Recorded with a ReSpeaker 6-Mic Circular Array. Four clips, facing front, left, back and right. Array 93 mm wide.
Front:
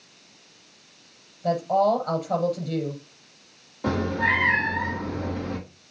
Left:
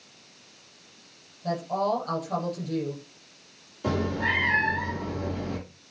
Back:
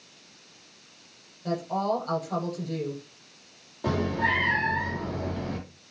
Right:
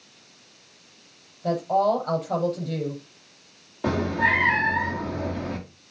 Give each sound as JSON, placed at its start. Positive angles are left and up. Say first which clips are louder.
{"t": 1.4, "sound": "a woman speaking", "louder": "right 5 dB, front 7 dB", "azimuth_deg": -50, "distance_m": 6.0}
{"t": 3.8, "sound": "a cat meowing", "louder": "right 4 dB, front 2 dB", "azimuth_deg": -85, "distance_m": 4.0}